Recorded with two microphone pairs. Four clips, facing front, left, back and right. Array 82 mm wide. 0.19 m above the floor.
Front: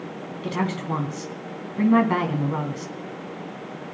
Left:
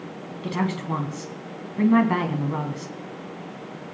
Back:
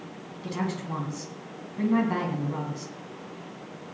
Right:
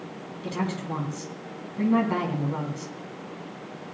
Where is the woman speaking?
40° left, 1.2 m.